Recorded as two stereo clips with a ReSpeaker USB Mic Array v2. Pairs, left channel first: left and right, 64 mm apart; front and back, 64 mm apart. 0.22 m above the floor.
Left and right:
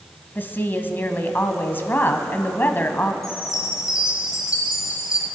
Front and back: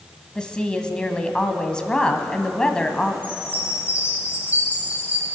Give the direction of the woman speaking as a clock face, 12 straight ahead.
10 o'clock.